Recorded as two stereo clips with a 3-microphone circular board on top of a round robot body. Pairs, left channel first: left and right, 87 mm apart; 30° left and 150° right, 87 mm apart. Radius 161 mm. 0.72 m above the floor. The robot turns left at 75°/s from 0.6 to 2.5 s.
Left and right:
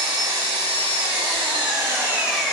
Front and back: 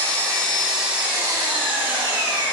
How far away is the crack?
I don't hear a crack.